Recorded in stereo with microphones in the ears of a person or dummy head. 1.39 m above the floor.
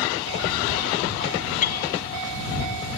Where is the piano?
50° left (ahead or behind).